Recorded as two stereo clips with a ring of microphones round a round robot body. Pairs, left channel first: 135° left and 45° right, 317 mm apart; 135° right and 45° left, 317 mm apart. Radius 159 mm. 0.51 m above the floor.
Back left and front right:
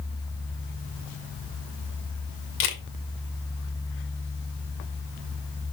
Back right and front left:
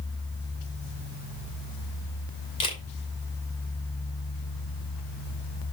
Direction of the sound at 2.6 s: 155° left.